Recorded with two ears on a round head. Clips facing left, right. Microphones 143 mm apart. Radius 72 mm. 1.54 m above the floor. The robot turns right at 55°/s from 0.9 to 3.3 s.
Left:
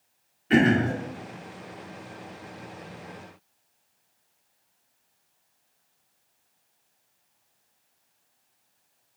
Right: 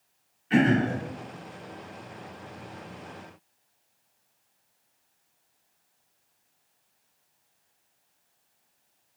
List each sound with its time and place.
0.5 s throat clearing: 65° left (ahead or behind), 2 m